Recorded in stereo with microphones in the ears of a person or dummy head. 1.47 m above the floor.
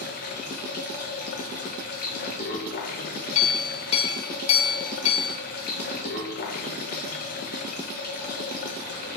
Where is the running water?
50° left (ahead or behind), 0.9 m.